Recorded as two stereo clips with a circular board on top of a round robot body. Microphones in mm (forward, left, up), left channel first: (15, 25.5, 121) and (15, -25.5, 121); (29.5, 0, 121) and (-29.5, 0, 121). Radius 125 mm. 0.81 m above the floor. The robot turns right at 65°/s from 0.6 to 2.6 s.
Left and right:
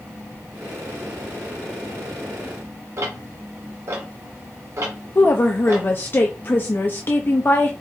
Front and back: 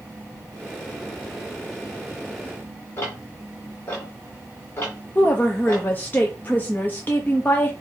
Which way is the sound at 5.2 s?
50° left.